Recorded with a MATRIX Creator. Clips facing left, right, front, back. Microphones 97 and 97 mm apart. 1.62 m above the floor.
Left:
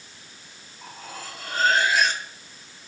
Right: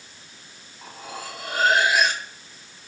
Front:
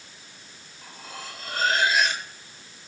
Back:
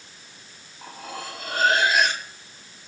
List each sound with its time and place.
0.8 s cutlery clinking: 170° right, 2.5 m